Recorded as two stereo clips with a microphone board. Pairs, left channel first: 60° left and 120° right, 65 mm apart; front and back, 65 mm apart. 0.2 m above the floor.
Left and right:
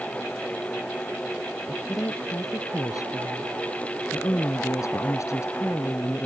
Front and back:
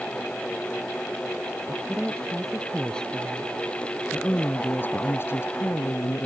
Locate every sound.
1.7 s a woman speaking: 85° left; by 6.3 s 20° left